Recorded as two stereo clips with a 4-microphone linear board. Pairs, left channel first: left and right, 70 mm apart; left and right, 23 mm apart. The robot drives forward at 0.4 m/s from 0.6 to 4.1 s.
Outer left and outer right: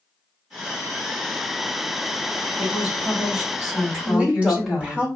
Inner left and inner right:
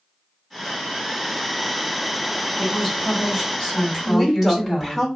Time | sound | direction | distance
2.6 | a woman speaking | 10° right (ahead or behind) | 1.8 m
4.0 | a woman speaking | 15° right (ahead or behind) | 1.0 m